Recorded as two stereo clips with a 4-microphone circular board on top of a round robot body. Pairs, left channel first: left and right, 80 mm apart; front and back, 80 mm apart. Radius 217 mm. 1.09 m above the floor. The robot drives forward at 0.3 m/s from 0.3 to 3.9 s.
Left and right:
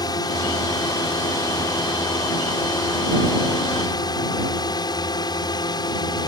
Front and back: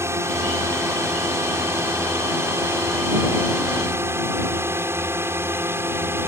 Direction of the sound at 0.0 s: 125° left.